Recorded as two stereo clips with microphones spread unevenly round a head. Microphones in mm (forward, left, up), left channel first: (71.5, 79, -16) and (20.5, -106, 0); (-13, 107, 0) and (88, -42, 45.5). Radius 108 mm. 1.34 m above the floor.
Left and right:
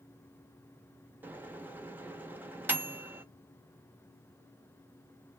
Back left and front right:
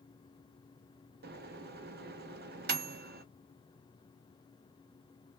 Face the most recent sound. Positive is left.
turn(degrees=-25)